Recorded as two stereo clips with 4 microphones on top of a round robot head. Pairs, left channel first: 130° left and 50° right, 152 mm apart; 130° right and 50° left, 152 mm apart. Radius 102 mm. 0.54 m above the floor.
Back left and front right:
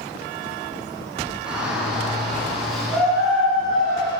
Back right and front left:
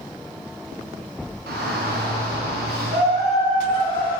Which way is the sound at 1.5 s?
35° left.